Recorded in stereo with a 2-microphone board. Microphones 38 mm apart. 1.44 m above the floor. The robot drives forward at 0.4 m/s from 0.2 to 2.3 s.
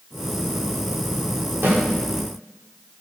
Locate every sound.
1.6 s a snare drum: 85° right, 5.5 m